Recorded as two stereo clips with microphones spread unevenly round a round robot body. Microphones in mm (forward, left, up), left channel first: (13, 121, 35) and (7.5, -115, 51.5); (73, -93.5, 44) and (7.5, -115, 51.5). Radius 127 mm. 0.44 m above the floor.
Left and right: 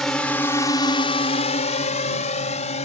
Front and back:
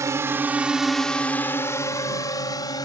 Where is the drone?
175° left; by 2.9 s 30° left.